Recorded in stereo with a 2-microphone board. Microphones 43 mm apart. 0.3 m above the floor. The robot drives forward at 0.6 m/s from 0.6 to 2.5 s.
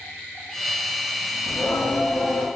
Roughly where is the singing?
Left.